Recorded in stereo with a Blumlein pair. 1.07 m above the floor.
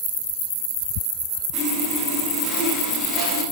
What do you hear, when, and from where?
1.5 s sawing: 5° left, 1.2 m